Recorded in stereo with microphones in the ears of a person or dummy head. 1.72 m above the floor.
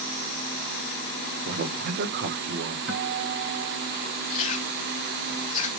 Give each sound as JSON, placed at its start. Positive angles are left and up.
{"t": 1.4, "sound": "a man speaking", "side_deg": -55, "distance_m": 1.8}
{"t": 2.9, "sound": "a guitar", "side_deg": -55, "distance_m": 5.5}
{"t": 4.3, "sound": "chewing", "side_deg": 45, "distance_m": 1.4}